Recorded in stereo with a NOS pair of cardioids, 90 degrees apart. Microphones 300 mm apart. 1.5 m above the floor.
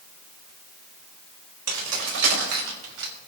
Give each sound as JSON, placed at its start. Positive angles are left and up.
{"t": 1.7, "sound": "keys jangling", "azimuth_deg": -60, "distance_m": 3.5}